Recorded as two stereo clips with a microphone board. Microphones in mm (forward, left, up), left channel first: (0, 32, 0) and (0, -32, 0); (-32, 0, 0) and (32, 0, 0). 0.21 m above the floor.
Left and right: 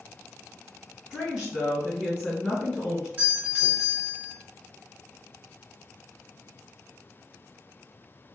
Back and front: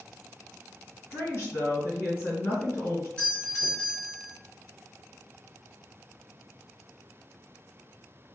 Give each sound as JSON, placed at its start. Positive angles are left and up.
{"t": 1.1, "sound": "a woman speaking", "azimuth_deg": -160, "distance_m": 1.8}
{"t": 3.2, "sound": "a doorbell", "azimuth_deg": -125, "distance_m": 1.4}